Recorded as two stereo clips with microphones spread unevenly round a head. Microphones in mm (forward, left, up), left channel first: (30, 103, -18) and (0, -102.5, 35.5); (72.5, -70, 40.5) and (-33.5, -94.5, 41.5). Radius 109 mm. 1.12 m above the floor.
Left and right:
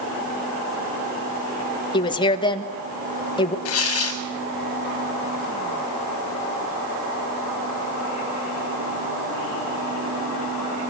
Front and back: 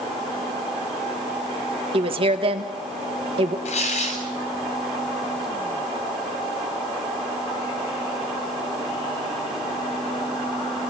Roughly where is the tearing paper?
Ahead left.